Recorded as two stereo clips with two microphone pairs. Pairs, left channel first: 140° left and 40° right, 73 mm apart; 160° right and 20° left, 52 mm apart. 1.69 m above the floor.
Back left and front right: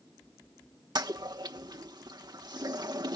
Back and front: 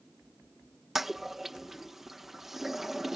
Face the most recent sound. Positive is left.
turn(degrees=-65)